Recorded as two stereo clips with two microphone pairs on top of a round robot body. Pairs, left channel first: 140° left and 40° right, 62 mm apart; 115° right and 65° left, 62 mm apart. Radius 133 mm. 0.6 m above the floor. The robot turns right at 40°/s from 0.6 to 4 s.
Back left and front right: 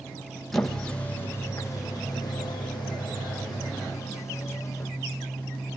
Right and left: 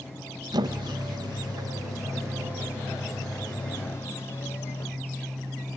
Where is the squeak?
50° left, 2.5 m; by 4.9 s 175° right, 2.5 m.